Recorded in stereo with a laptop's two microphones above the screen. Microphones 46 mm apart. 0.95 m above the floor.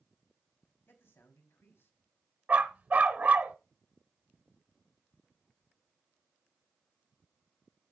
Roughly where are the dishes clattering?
No dishes clattering in this recording.